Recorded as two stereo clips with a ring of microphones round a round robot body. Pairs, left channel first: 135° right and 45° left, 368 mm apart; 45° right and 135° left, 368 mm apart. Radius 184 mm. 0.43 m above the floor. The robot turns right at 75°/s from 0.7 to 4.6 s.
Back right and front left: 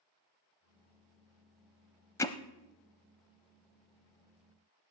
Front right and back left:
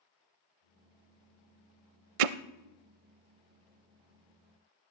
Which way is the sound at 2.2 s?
140° left.